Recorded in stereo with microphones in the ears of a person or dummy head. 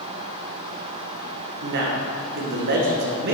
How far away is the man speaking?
About 1.1 m.